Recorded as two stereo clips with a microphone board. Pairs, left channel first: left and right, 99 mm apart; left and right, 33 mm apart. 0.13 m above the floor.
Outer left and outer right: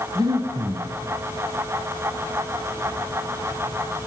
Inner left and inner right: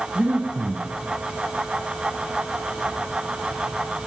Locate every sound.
0.1 s breathing: 40° right (ahead or behind), 1.0 m